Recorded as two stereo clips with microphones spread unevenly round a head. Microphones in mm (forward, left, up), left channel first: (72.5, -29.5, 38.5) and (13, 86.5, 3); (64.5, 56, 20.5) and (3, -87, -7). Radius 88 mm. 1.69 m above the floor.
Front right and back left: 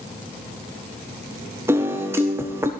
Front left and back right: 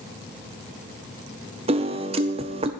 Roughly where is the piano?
Behind right.